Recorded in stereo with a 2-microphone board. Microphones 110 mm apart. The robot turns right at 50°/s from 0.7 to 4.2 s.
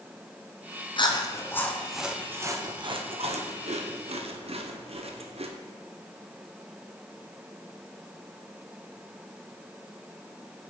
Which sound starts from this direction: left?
Chewing, at 1.0 s.